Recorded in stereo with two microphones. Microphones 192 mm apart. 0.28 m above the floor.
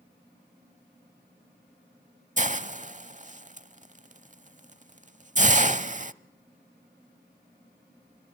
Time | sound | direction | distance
2.4 | a hiss | 40° right (ahead or behind) | 0.7 m